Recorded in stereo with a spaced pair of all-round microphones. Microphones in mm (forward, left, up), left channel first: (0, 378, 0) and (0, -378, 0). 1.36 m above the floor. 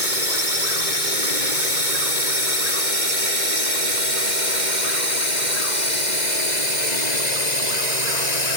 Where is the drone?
90° right; by 8.6 s 60° right (ahead or behind).